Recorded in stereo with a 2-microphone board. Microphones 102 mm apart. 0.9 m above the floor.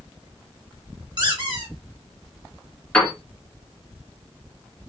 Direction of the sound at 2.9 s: 10° left (ahead or behind).